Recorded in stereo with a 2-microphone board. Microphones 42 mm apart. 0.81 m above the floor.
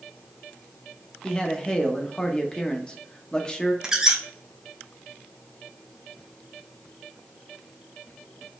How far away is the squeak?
About 0.7 m.